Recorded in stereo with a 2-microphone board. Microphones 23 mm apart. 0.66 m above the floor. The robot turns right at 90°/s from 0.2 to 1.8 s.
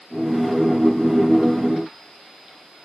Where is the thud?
No thud in this recording.